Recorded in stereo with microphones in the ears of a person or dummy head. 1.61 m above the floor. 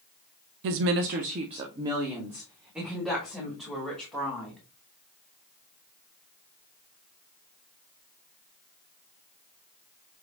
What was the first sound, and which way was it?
A woman speaking, 60° right (ahead or behind).